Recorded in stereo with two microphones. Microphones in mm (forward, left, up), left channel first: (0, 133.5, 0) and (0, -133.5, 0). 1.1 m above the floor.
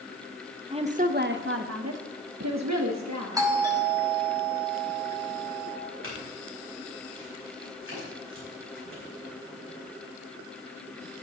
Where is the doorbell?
15° right (ahead or behind), 2.5 m.